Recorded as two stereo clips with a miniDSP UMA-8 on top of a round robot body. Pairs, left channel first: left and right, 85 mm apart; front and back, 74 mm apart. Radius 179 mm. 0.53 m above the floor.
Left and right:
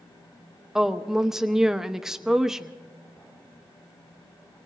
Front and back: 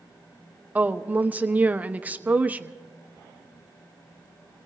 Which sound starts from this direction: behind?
A woman speaking, at 0.8 s.